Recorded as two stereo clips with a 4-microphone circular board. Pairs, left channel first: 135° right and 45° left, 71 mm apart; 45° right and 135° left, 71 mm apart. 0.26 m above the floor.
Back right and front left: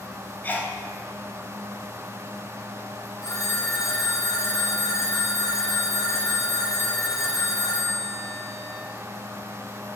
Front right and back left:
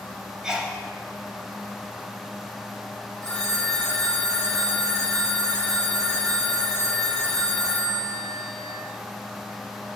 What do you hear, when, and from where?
0.4 s a sneeze: 150° right, 1.6 m
3.2 s a phone ringing: 125° right, 2 m